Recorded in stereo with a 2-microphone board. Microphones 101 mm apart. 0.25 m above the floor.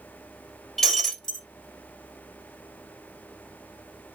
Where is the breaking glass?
5° left (ahead or behind), 1.6 m.